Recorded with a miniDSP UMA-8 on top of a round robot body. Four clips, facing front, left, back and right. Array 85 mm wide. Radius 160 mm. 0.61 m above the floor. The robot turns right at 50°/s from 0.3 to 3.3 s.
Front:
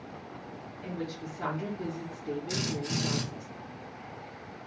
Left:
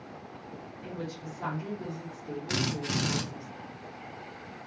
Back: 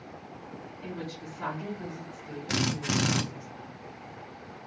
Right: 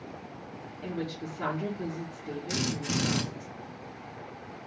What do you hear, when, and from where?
0.8 s a woman speaking: 105° right, 2.5 m; by 3.5 s 20° left, 2.5 m
2.5 s a drill: 150° left, 0.6 m; by 3.2 s 170° right, 0.6 m